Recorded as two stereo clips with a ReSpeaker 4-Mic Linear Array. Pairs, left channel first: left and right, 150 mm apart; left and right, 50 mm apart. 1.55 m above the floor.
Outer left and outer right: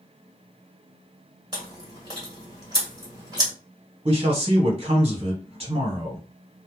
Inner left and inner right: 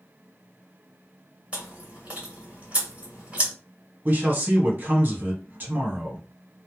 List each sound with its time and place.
1.5 s chewing: 30° right (ahead or behind), 1.6 m
4.0 s a man speaking: 40° right (ahead or behind), 1.1 m